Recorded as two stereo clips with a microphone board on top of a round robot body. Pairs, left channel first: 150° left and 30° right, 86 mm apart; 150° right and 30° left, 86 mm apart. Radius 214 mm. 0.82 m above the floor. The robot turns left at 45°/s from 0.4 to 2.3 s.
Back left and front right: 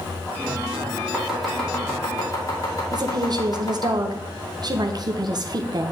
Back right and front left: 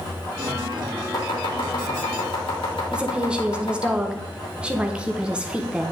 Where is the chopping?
110° right, 2.5 m; by 3.9 s 160° right, 2.5 m.